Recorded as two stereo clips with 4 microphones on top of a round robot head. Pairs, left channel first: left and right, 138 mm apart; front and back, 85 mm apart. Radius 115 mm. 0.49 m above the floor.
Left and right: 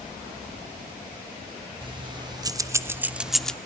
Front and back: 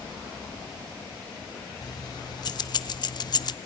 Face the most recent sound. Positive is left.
turn(degrees=10)